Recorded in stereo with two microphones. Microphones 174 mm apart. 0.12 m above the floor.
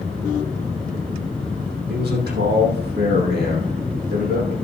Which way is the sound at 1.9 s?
70° right (ahead or behind).